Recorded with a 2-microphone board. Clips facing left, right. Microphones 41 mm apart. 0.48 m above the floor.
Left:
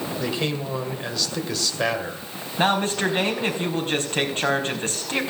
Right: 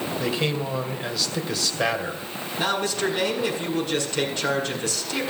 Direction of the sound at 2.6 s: 40° left (ahead or behind).